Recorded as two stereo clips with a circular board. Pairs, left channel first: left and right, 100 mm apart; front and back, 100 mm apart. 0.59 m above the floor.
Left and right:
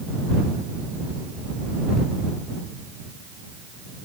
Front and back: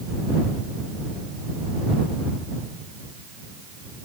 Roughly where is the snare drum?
No snare drum in this recording.